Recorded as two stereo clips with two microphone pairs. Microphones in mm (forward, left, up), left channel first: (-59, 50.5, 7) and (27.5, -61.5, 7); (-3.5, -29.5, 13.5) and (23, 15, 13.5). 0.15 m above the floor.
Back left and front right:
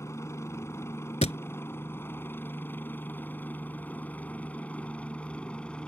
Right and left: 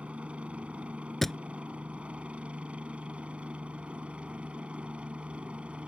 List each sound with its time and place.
0.0 s a helicopter: 90° left; by 5.9 s 55° left
1.2 s a thud: 155° left